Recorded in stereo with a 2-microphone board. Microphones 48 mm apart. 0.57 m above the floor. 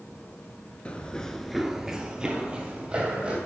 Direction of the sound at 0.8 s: 25° left (ahead or behind).